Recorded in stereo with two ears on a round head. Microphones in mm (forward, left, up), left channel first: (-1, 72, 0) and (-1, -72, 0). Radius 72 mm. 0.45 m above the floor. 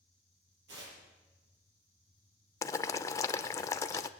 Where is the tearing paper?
80° right, 6 m.